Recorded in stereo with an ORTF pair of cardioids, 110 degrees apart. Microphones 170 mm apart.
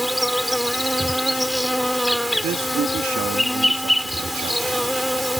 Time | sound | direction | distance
0.0 | an insect | straight ahead | ?
2.4 | a man speaking | 55° right | ?